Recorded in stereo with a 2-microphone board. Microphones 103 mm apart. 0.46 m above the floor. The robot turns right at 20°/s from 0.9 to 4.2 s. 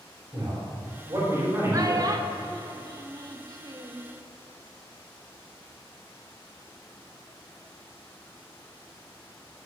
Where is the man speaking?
40° right (ahead or behind), 3 m; by 2.2 s 20° right (ahead or behind), 3 m.